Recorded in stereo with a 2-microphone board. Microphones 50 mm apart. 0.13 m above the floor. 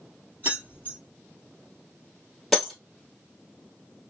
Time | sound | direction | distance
0.4 | keys jangling | 40° right (ahead or behind) | 2 m
2.5 | breaking glass | 5° right (ahead or behind) | 1.8 m